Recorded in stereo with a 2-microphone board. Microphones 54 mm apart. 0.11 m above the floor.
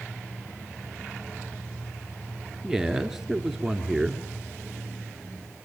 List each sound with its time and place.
2.6 s a man speaking: 5° right (ahead or behind), 1.7 m